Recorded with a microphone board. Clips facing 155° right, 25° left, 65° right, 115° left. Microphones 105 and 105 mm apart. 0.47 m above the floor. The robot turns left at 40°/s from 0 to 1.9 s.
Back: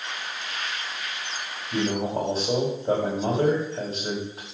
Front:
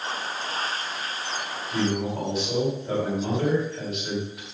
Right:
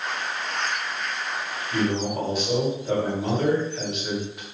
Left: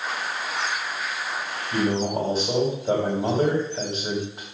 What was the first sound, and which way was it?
A man speaking, 175° left.